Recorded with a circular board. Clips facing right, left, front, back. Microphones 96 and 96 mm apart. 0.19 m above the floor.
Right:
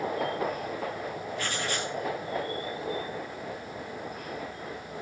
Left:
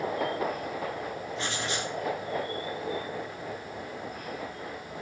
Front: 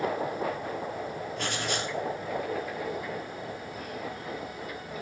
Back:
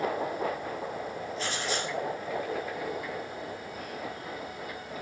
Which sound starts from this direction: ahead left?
Writing, at 1.4 s.